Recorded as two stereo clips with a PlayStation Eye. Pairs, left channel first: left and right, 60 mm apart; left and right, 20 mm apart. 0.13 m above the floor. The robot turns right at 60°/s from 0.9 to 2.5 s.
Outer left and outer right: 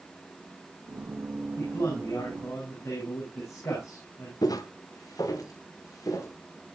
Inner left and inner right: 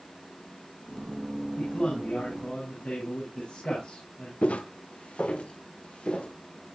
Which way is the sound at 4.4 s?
90° left.